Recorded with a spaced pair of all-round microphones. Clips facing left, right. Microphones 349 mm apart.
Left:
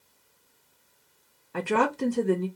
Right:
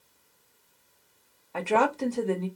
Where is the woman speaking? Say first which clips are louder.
Even; 20° left (ahead or behind), 0.7 m.